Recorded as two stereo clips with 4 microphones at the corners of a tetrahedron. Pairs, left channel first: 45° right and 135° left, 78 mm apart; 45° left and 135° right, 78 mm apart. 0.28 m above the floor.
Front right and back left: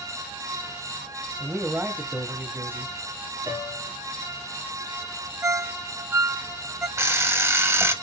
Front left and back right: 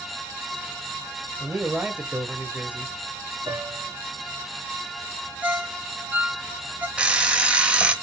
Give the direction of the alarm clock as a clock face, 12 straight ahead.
7 o'clock.